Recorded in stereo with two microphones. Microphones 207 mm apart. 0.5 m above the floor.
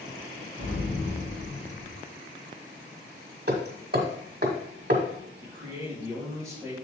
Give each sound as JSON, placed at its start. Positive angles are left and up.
{"t": 0.6, "sound": "an explosion", "side_deg": 40, "distance_m": 4.5}
{"t": 3.5, "sound": "hammering", "side_deg": -50, "distance_m": 1.6}
{"t": 5.4, "sound": "a man speaking", "side_deg": 0, "distance_m": 4.0}